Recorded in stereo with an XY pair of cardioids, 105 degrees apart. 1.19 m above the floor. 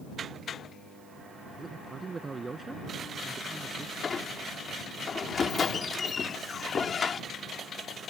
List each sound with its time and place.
1.6 s a man speaking: 25° right
4.0 s a squeak: 40° left